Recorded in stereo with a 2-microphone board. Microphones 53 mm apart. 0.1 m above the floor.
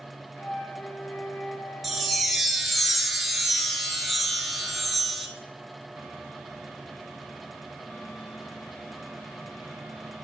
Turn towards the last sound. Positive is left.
turn(degrees=0)  # may be behind; listen again after turning